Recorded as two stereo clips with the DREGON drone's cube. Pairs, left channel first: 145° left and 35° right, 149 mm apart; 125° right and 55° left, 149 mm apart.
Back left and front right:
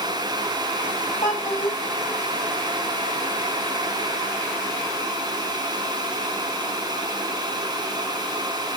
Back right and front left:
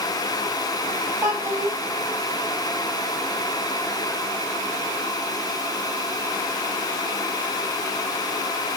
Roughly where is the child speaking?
Behind left.